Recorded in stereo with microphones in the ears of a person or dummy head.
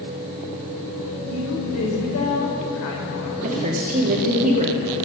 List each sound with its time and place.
1.2 s a woman speaking: 75° left (ahead or behind), 4 m
3.4 s a woman speaking: 35° right (ahead or behind), 2 m